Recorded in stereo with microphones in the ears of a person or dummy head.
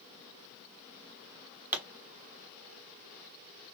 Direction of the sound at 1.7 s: 10° right (ahead or behind).